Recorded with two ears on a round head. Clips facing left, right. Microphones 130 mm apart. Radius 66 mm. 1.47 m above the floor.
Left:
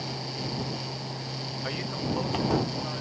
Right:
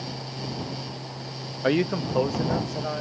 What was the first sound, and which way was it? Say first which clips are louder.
A man speaking: right 10 dB; 65° right (ahead or behind).